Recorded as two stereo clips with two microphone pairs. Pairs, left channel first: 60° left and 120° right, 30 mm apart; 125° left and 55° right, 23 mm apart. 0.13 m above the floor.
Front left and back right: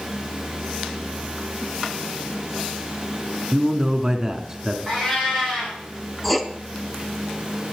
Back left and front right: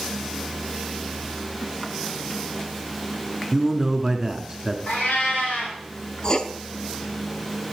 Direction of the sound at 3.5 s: 85° right.